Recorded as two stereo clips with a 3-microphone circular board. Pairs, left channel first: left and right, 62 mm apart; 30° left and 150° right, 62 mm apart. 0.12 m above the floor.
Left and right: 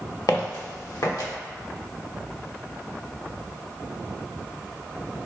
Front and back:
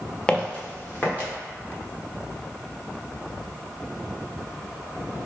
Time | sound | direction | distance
0.3 | footsteps | 110° left | 1.2 m